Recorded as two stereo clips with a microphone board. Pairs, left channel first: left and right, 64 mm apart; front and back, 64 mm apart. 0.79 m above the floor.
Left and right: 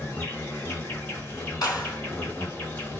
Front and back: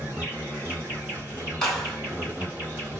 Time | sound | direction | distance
0.0 | an insect | 130° left | 1.9 m
1.6 | a clap | 85° left | 1.9 m